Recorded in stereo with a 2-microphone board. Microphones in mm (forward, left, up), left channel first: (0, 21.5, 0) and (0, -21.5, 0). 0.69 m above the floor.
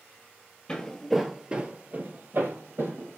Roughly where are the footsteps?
Left.